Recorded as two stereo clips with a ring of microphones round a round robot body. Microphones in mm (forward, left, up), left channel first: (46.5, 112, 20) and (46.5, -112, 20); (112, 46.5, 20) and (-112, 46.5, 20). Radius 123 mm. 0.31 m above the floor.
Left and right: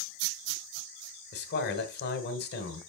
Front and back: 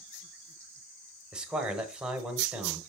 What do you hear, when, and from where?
1.3 s a man speaking: 95° left, 1.3 m